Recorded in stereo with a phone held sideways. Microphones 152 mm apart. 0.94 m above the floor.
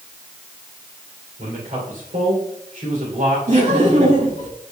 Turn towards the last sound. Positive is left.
turn(degrees=-55)  # may be behind; listen again after turning